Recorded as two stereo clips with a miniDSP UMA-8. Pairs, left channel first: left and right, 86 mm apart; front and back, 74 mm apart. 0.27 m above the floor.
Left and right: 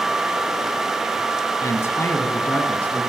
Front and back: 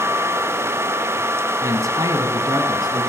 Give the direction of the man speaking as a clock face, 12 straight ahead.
7 o'clock.